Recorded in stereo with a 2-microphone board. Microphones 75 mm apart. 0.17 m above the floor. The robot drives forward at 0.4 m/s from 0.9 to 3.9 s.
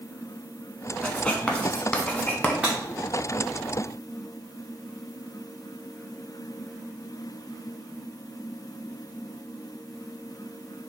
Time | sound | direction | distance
1.0 | writing | 15° left (ahead or behind) | 0.7 m
2.6 | breaking glass | 10° right (ahead or behind) | 1.7 m